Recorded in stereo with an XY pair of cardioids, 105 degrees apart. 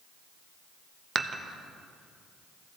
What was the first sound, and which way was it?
Dishes clattering, 40° right.